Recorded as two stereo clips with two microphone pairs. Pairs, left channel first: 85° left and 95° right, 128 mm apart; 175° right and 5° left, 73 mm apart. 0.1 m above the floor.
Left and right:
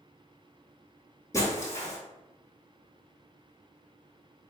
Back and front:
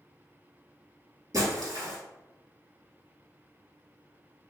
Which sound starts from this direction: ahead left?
Breaking glass, at 1.3 s.